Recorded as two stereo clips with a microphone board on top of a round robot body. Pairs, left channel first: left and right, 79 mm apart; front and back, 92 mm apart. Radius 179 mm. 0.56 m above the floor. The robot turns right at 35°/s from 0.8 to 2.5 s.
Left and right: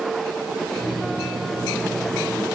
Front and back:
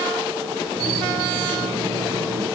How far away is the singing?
No singing in this recording.